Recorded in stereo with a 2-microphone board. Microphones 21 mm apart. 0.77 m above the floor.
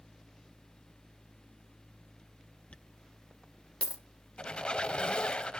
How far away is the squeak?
About 0.8 m.